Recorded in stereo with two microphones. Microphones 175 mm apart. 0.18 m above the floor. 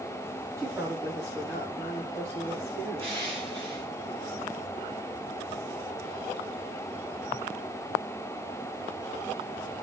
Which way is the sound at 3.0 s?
30° right (ahead or behind).